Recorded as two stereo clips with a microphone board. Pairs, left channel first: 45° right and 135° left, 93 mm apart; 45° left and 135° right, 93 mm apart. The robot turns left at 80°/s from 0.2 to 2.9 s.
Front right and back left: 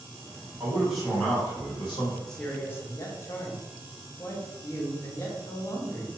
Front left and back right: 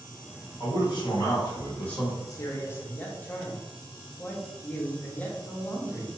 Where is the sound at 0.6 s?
75° left, 1.2 m; by 2.2 s 50° right, 1.2 m.